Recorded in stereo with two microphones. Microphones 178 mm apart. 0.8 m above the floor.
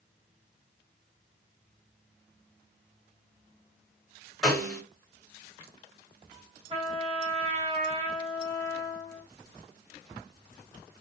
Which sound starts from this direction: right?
A trumpet, at 6.7 s.